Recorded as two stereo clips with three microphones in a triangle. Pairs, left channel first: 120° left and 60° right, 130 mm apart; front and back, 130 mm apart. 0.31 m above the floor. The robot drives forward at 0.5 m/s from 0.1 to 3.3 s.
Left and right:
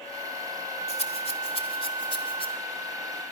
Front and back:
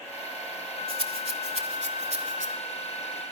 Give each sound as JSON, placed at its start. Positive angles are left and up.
{"t": 0.9, "sound": "a rattle", "azimuth_deg": 145, "distance_m": 0.8}